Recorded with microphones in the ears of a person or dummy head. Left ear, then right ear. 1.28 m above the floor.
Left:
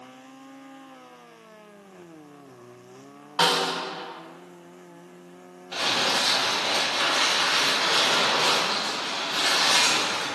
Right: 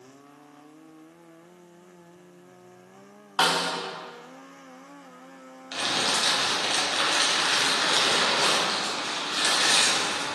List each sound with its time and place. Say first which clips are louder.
3.4 s a snare drum: left 1 dB; 25° right (ahead or behind), 0.7 m
5.7 s crumpling: left 2 dB; 65° right (ahead or behind), 1.1 m